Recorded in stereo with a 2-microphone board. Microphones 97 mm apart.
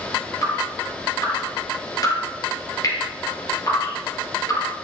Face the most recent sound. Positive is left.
turn(degrees=40)  # may be behind; listen again after turning